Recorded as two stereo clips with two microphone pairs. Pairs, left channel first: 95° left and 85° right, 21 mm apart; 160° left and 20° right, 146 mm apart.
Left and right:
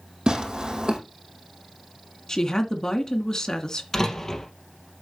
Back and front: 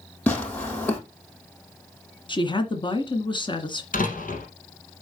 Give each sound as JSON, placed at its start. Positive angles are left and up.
{"t": 0.3, "sound": "tearing paper", "azimuth_deg": -120, "distance_m": 4.0}
{"t": 2.3, "sound": "a woman speaking", "azimuth_deg": 130, "distance_m": 1.8}
{"t": 3.9, "sound": "a door slam", "azimuth_deg": 160, "distance_m": 3.0}